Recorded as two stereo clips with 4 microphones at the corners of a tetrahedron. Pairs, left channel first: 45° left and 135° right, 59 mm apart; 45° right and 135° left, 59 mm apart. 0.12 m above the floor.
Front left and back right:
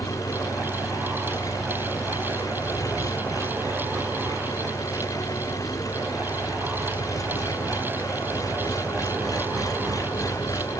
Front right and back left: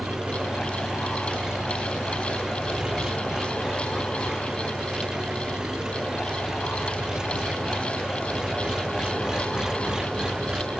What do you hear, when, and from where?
0.0 s an engine running: 55° left